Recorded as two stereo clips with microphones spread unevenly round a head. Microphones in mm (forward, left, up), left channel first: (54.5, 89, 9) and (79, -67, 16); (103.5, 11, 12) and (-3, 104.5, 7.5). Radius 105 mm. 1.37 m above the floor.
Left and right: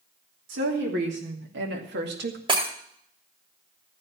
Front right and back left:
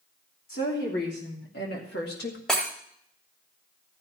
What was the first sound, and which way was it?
A woman speaking, 90° right.